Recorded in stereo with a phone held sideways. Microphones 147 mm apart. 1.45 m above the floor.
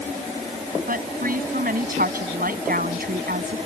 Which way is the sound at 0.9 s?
75° right (ahead or behind).